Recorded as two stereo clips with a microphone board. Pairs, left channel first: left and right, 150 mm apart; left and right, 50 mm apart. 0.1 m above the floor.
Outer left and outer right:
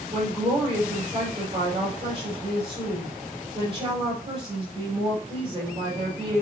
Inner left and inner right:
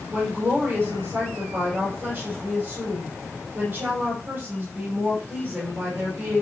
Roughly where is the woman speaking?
Right.